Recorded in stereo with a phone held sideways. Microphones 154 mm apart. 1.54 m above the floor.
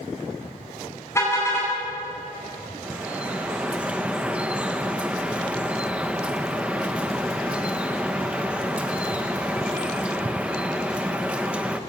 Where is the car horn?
15° left (ahead or behind), 9 m.